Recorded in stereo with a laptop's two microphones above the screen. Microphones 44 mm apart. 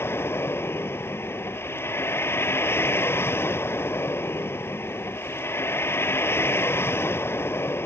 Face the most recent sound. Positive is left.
turn(degrees=55)  # may be behind; listen again after turning